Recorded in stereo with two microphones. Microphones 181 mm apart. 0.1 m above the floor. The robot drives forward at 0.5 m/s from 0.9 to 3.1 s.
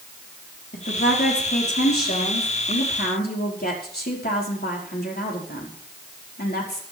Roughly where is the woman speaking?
Left.